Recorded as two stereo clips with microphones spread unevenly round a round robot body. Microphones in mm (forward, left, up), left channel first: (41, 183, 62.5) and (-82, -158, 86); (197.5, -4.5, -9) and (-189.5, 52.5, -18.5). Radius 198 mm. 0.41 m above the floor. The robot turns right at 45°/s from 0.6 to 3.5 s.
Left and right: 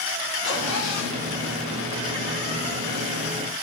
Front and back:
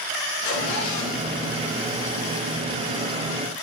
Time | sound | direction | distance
0.4 | a zipper | 10° left | 4 m